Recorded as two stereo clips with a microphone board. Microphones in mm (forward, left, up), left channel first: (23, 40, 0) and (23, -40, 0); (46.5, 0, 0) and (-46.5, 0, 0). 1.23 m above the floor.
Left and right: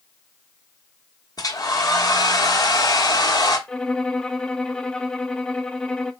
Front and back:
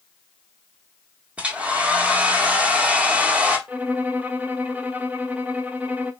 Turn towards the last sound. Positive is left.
turn(degrees=145)